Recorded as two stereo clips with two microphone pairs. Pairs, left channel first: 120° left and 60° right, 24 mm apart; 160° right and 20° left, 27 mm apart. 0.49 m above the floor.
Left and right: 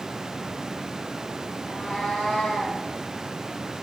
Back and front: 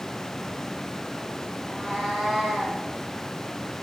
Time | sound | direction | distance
1.6 | a cat meowing | 110° left | 1.3 m